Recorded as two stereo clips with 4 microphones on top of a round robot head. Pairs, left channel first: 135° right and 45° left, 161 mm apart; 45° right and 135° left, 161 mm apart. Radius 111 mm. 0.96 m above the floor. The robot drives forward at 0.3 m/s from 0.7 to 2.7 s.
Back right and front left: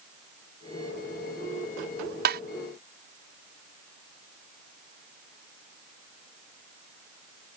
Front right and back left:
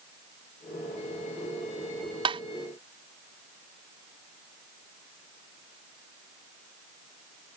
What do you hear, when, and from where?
2.2 s tapping: 70° left